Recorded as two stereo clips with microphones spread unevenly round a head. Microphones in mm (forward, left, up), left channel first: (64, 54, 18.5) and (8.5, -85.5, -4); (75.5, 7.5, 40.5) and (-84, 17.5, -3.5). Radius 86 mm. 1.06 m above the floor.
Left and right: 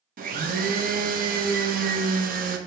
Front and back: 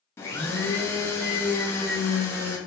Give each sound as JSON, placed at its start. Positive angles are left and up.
{"t": 0.2, "sound": "a blender", "azimuth_deg": -80, "distance_m": 0.7}